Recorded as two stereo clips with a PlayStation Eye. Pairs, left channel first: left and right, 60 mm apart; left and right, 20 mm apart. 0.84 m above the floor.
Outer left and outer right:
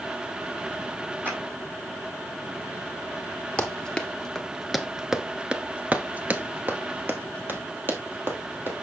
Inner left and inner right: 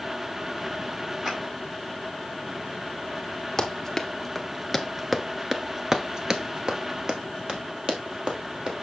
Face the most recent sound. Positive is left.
turn(degrees=-35)  # may be behind; listen again after turning